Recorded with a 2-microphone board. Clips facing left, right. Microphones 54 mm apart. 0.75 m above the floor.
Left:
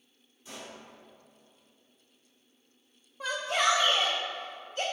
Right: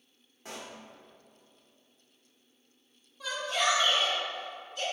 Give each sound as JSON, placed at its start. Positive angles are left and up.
{"t": 0.5, "sound": "a pop", "side_deg": -70, "distance_m": 1.4}
{"t": 3.2, "sound": "a shout", "side_deg": 40, "distance_m": 0.9}